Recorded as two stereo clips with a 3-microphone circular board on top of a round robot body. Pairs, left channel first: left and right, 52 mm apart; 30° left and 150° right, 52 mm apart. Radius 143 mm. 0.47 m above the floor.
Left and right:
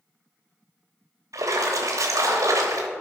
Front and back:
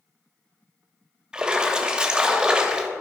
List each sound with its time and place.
1.3 s a splash: 80° right, 0.9 m